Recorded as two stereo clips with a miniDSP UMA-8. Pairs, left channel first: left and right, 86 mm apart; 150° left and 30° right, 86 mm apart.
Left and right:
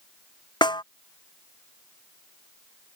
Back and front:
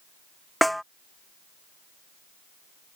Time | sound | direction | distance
0.6 | a snare drum | 60° left | ?